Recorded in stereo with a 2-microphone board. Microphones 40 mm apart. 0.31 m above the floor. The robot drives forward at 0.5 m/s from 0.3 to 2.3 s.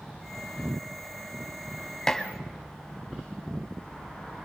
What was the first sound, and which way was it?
Dishes clattering, 15° left (ahead or behind).